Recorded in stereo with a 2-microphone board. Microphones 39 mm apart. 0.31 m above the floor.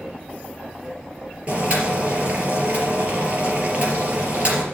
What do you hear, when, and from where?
1.5 s boiling: 40° right (ahead or behind), 3.5 m